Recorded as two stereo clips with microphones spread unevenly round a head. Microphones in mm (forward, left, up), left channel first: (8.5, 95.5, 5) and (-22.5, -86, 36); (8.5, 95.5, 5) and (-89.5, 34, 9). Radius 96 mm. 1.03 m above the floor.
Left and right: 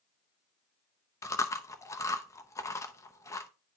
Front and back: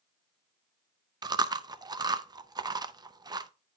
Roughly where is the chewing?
Behind left.